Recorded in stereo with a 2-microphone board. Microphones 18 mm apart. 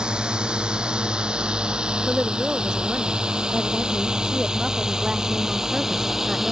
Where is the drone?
75° right (ahead or behind); by 6.5 s 20° right (ahead or behind).